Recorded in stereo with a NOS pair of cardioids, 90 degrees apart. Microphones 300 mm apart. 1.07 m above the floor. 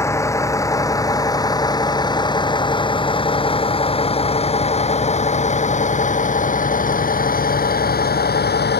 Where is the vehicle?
10° left; by 8.8 s 35° left.